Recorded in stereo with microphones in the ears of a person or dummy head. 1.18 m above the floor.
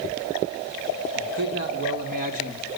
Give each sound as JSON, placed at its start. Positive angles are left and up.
{"t": 1.1, "sound": "a man speaking", "side_deg": -70, "distance_m": 3.5}